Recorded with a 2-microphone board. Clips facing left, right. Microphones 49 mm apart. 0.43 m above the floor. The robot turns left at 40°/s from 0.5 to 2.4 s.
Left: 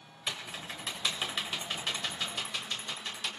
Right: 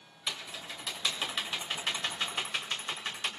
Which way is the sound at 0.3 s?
35° left (ahead or behind).